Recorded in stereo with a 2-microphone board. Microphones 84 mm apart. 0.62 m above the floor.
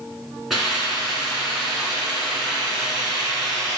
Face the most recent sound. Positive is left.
turn(degrees=-5)  # may be behind; listen again after turning